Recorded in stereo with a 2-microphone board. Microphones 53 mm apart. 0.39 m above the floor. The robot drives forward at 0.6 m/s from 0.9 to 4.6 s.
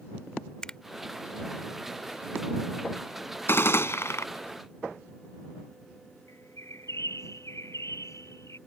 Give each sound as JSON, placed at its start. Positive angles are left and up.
{"t": 0.6, "sound": "a finger snap", "side_deg": 15}
{"t": 3.5, "sound": "a gunshot", "side_deg": 50}
{"t": 6.3, "sound": "a bird", "side_deg": 70}